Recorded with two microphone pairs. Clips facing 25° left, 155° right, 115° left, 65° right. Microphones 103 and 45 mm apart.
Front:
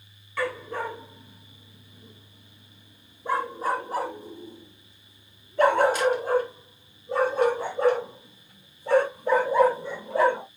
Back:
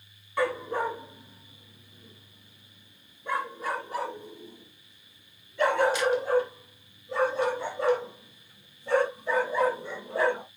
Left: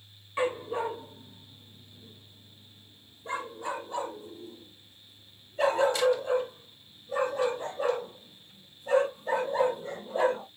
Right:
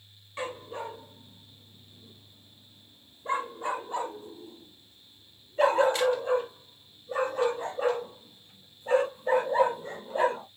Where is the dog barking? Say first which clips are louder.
Back 2 dB, left 7 dB; 170° left, 1.1 m; by 10.4 s 15° right, 5 m.